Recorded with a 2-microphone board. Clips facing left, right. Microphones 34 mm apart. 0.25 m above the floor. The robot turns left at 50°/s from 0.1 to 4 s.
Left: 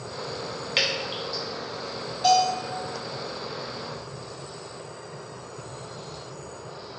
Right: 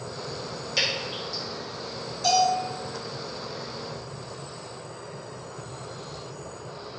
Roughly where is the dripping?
Left.